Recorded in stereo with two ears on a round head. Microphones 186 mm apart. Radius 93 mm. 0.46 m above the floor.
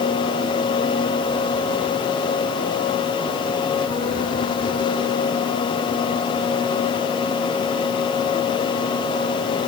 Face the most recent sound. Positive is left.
No sound to turn to.